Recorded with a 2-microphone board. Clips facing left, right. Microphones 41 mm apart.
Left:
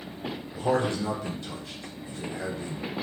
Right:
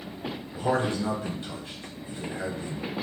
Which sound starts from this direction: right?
A man speaking, at 0.6 s.